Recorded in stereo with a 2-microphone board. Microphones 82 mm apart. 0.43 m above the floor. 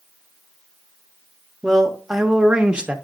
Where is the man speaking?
Centre (ahead or behind), 0.9 m; by 3.0 s 15° right (ahead or behind), 0.8 m.